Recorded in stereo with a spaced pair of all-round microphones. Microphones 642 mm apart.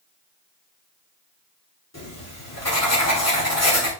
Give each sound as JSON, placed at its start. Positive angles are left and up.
{"t": 1.9, "sound": "writing", "side_deg": 25, "distance_m": 2.5}